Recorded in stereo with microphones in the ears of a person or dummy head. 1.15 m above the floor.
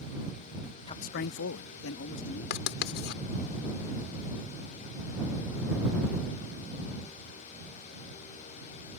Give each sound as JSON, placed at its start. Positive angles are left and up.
{"t": 0.9, "sound": "a man speaking", "side_deg": 20}
{"t": 2.5, "sound": "writing", "side_deg": 65}